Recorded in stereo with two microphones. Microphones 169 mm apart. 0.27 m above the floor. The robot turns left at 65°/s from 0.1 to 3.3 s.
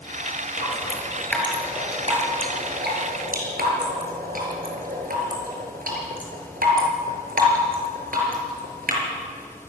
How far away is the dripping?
About 6 m.